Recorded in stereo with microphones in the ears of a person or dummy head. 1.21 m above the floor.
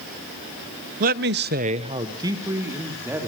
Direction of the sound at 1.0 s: 45° right (ahead or behind).